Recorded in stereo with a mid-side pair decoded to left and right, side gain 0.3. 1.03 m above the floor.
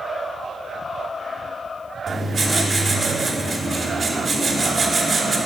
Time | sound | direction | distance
2.1 | writing | 50° right | 1.8 m